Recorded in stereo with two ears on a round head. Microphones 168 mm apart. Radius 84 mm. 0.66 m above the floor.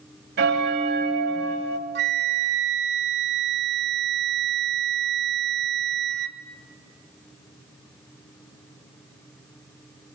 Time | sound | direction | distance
0.4 | a bell | 60° right (ahead or behind) | 1.4 m
1.9 | a flute | 60° right (ahead or behind) | 1.0 m